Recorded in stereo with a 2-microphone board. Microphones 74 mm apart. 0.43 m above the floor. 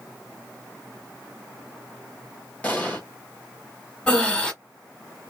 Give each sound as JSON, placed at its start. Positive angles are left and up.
{"t": 2.6, "sound": "an explosion", "side_deg": 20, "distance_m": 1.3}
{"t": 4.1, "sound": "breathing", "side_deg": 10, "distance_m": 1.0}